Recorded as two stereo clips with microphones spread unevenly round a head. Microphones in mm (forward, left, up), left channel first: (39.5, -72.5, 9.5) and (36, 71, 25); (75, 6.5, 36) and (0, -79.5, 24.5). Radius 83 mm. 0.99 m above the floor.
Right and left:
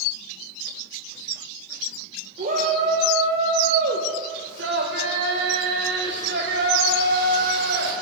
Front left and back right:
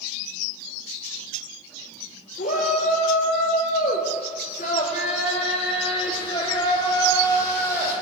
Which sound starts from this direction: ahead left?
A shout, at 2.4 s.